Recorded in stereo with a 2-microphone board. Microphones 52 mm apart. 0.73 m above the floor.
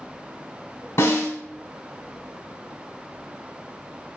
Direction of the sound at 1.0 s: 65° left (ahead or behind).